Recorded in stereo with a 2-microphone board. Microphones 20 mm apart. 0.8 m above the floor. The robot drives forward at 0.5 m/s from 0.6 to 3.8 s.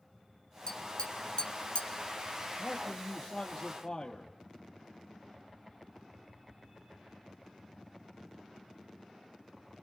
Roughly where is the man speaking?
Left.